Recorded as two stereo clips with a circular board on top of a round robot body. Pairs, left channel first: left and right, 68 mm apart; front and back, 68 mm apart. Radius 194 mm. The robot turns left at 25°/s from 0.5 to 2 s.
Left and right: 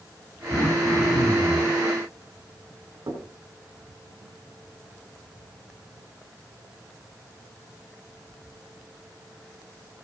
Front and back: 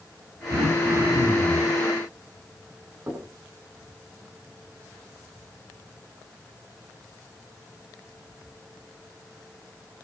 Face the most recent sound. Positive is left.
turn(degrees=-120)